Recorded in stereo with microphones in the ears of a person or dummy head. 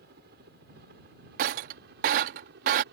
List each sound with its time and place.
0.0 s a helicopter: 55° right (ahead or behind); by 2.9 s 60° right (ahead or behind)
1.4 s breaking glass: 50° right (ahead or behind)